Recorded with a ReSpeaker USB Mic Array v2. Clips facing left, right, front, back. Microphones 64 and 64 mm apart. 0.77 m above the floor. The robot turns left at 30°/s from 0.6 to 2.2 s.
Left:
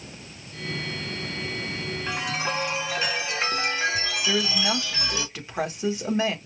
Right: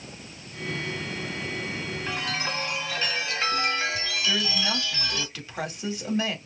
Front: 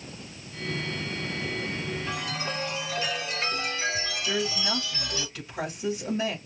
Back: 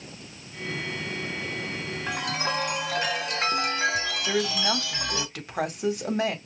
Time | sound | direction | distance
2.1 | a chime | 170° left | 1.5 m
4.3 | a woman speaking | 155° left | 1.9 m